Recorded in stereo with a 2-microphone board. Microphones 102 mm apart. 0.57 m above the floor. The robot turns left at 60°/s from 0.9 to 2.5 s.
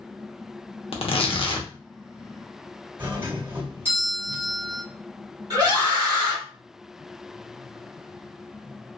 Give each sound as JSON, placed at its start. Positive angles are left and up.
{"t": 0.9, "sound": "tearing paper", "azimuth_deg": 95, "distance_m": 0.6}
{"t": 3.0, "sound": "a doorbell", "side_deg": -25, "distance_m": 1.6}
{"t": 5.5, "sound": "a scream", "side_deg": -45, "distance_m": 1.9}